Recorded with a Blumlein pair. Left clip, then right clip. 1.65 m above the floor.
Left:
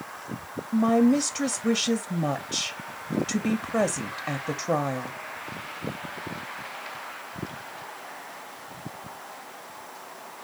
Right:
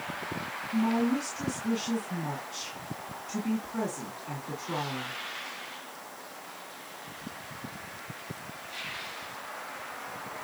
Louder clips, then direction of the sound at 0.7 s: Left 8 dB; 40° left.